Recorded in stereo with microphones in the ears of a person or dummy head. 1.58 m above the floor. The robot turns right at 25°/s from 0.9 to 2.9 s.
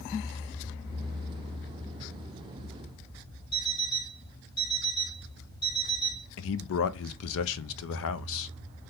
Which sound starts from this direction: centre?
An alarm clock, at 3.5 s.